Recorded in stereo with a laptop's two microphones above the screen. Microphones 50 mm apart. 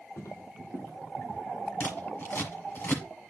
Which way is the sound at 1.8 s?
45° left (ahead or behind).